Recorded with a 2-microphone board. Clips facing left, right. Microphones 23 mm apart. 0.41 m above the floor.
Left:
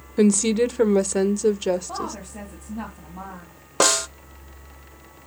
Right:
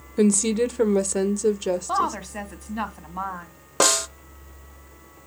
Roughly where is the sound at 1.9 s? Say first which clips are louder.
Right 7 dB; right.